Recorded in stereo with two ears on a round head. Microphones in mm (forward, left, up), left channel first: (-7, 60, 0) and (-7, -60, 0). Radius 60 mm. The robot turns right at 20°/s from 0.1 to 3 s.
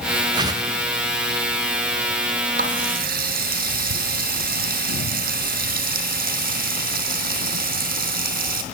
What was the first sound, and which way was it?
A whoosh, 35° right (ahead or behind).